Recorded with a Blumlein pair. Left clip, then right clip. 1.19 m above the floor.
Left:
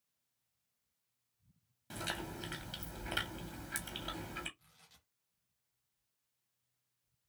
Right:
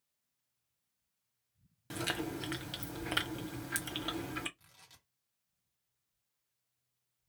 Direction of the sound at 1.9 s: 20° right.